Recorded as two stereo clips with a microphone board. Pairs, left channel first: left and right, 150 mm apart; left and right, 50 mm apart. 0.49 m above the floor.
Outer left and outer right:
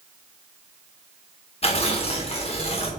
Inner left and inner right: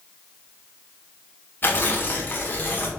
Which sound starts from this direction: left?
Tearing paper, at 1.6 s.